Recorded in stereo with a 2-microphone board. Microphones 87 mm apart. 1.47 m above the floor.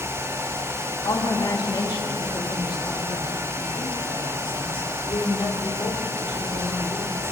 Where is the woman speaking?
50° left (ahead or behind), 3 m; by 7.2 s 85° left, 5.5 m.